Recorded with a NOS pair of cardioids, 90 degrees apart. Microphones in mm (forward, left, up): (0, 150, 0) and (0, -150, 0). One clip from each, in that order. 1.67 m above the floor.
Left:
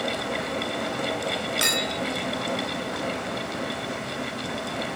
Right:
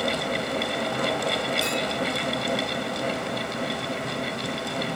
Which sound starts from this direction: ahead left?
A clink, at 1.6 s.